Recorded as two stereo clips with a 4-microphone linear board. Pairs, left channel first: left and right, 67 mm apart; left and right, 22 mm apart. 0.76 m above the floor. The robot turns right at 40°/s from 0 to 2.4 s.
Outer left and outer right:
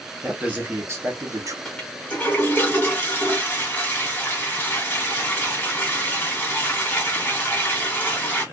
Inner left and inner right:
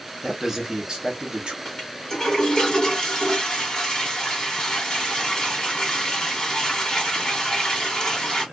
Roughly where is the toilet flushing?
Ahead.